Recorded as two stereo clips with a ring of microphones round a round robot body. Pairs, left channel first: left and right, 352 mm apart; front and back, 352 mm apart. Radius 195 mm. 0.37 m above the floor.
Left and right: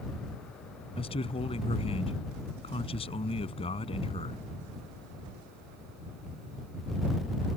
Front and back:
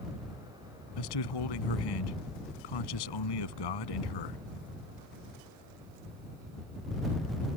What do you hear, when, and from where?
1.0 s a man speaking: 15° left